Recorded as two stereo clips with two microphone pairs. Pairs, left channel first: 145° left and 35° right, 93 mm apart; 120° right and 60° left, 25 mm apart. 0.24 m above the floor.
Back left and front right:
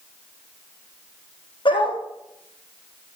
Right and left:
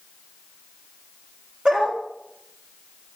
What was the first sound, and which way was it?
A dog barking, 115° left.